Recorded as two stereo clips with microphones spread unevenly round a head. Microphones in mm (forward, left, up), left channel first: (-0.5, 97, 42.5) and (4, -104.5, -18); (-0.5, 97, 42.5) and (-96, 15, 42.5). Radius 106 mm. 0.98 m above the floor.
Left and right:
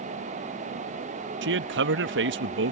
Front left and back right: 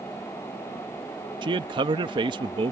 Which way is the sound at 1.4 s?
80° right.